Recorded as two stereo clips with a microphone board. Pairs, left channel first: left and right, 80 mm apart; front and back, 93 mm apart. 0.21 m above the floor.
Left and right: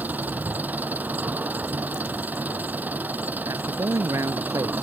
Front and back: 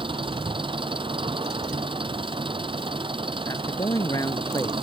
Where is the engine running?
160° right.